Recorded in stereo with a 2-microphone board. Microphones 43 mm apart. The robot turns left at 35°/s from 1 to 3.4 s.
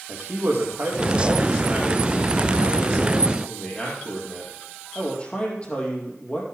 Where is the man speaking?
125° right, 4.5 m; by 6.4 s 150° left, 4.5 m.